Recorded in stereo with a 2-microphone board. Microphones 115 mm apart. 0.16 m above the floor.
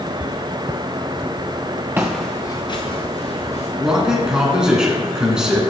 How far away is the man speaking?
About 1.7 m.